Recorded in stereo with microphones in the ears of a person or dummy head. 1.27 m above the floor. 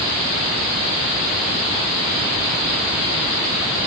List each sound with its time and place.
Only background noise.